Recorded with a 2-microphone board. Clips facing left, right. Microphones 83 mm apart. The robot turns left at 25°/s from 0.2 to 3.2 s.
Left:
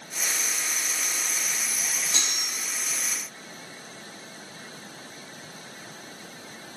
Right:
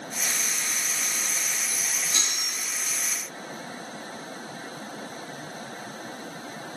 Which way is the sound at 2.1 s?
75° left (ahead or behind).